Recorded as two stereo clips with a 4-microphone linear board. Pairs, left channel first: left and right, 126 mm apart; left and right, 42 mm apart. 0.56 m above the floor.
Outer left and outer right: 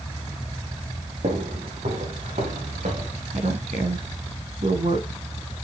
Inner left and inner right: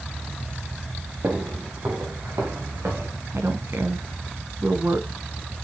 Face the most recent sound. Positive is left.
turn(degrees=-70)  # may be behind; listen again after turning